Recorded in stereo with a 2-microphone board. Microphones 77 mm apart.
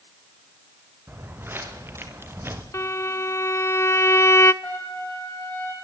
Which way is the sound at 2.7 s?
35° left (ahead or behind).